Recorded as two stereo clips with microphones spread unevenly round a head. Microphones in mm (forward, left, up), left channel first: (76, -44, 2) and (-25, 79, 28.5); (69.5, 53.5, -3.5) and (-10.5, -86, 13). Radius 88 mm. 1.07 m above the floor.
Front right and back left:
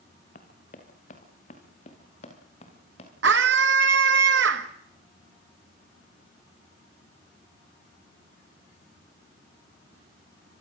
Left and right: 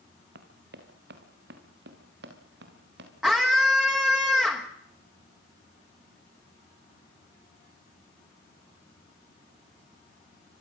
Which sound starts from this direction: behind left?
A scream, at 3.2 s.